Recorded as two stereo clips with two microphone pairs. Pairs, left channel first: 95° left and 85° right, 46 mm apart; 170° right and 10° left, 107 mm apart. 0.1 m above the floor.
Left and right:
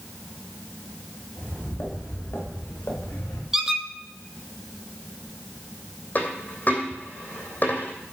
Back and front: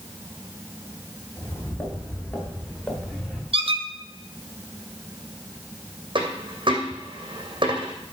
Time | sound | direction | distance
1.4 | footsteps | 130° left | 5.5 m
3.5 | a squeak | 5° right | 0.9 m
6.2 | a dropped coin | 45° left | 2.5 m